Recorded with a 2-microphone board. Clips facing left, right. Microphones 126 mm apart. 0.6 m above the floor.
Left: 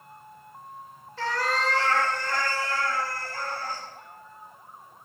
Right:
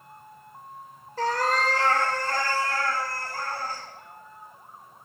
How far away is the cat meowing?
About 0.6 m.